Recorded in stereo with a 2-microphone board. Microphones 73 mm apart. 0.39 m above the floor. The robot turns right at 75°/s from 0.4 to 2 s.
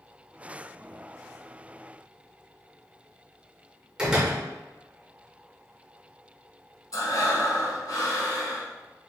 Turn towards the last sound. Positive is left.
turn(degrees=55)  # may be behind; listen again after turning